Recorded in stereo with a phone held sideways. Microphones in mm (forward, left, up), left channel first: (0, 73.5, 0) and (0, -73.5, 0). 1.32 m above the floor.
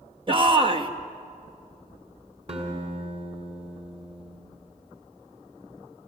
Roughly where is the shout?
Right.